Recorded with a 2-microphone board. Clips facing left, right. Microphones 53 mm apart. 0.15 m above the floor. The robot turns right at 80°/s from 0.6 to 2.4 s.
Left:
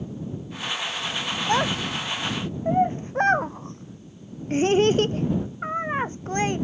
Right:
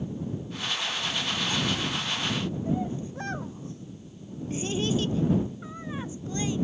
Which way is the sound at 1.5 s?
55° left (ahead or behind).